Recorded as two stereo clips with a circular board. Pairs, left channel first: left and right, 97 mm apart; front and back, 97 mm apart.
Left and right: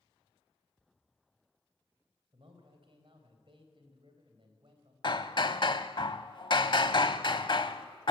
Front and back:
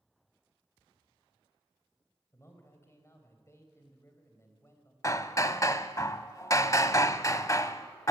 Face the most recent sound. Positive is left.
turn(degrees=55)